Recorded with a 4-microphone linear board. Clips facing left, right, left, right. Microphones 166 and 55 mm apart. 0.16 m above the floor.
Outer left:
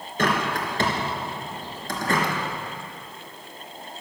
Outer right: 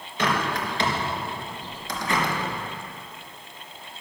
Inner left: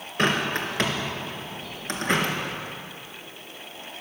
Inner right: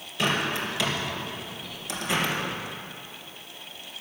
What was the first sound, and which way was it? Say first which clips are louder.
A bird: outer left 1 dB, inner left 2 dB; 55° left (ahead or behind).